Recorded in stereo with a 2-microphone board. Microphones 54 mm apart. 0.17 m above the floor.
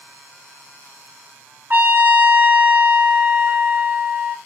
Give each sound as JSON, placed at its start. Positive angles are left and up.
{"t": 1.7, "sound": "a trumpet", "side_deg": -35, "distance_m": 0.6}